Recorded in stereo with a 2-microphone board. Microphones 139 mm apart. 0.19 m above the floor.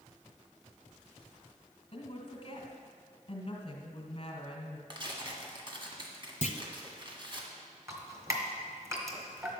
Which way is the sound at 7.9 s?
20° right (ahead or behind).